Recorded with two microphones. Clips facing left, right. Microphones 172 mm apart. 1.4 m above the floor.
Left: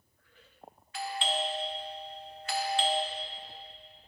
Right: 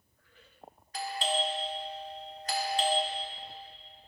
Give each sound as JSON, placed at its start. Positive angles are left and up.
{"t": 0.9, "sound": "a doorbell", "side_deg": -40, "distance_m": 0.8}